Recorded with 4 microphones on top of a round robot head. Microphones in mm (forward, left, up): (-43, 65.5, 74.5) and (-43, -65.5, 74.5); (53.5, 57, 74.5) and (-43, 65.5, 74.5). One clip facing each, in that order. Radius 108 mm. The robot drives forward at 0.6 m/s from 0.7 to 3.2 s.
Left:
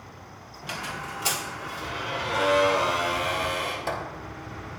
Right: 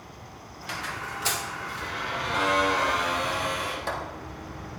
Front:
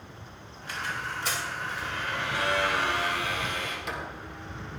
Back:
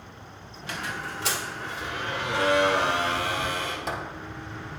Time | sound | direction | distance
0.6 | a squeak | 160° left | 1.1 m